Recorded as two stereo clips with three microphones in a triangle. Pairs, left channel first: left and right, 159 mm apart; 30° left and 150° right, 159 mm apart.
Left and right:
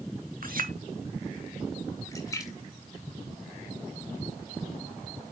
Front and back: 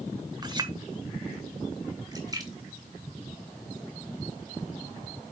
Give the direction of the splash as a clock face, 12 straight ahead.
7 o'clock.